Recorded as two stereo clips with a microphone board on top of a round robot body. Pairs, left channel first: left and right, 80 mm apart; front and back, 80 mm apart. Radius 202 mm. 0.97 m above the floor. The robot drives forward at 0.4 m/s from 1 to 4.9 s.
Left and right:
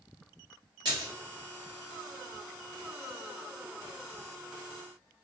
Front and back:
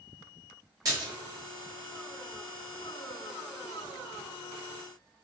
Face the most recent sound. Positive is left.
turn(degrees=-165)